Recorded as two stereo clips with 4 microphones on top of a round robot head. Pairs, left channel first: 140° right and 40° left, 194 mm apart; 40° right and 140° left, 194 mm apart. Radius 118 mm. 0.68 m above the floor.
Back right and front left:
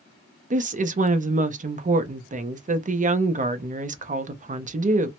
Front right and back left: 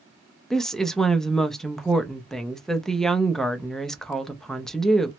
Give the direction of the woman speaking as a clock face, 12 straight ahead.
10 o'clock.